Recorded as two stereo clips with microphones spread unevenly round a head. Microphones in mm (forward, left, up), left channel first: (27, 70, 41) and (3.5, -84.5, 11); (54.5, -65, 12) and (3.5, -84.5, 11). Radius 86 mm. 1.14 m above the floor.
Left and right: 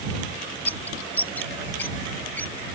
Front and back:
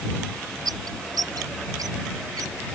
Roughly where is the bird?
Behind.